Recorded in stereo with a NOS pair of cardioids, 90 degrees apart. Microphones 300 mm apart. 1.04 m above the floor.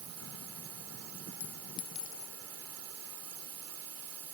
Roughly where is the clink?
Ahead left.